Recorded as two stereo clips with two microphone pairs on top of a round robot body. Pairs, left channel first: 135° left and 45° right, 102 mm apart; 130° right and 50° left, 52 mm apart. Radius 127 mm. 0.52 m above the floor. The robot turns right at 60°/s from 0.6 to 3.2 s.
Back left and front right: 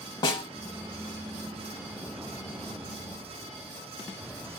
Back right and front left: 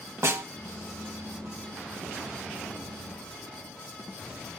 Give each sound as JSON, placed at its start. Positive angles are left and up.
{"t": 0.2, "sound": "a snare drum", "azimuth_deg": 95, "distance_m": 0.8}